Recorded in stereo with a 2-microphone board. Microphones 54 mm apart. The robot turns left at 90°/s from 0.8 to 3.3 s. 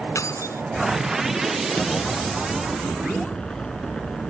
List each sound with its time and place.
0.1 s keys jangling: 75° left (ahead or behind)
1.8 s an explosion: 155° left; by 4.3 s 20° left